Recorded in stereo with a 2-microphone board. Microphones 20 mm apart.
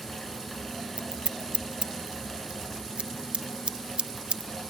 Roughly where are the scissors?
Right.